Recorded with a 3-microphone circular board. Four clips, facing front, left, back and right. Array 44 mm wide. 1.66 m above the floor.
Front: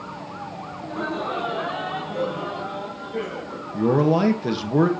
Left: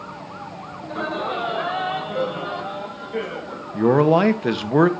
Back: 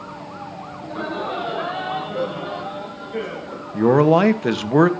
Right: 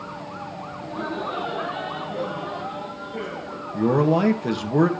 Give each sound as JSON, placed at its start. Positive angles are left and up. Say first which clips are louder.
{"t": 0.8, "sound": "laughter", "louder": "left 3 dB, back 1 dB", "azimuth_deg": 110, "distance_m": 8.5}
{"t": 3.7, "sound": "a man speaking", "louder": "left 4 dB, back 5 dB", "azimuth_deg": 145, "distance_m": 1.9}